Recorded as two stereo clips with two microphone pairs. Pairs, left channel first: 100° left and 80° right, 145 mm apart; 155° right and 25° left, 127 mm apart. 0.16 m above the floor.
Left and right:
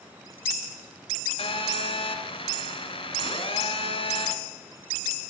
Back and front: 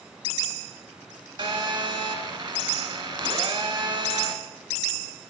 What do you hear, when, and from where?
1.4 s a phone buzzing: 65° left, 0.8 m